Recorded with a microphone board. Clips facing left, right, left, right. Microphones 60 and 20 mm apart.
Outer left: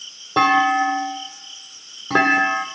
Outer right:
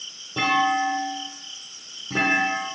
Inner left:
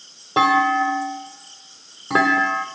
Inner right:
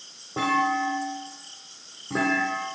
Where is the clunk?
70° left (ahead or behind), 0.8 m.